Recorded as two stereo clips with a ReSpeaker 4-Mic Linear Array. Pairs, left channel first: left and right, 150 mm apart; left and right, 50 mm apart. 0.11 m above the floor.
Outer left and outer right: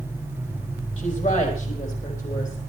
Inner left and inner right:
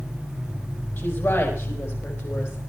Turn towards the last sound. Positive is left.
turn(degrees=60)  # may be behind; listen again after turning